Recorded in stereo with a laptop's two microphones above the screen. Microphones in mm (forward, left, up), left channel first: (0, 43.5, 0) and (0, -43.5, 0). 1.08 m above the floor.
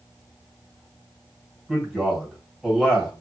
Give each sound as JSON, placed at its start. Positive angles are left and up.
{"t": 1.7, "sound": "a man speaking", "side_deg": -5, "distance_m": 1.6}